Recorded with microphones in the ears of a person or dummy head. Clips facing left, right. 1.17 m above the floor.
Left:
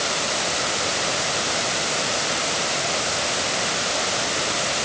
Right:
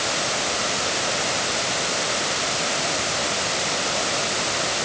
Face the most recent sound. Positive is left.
No sound to turn to.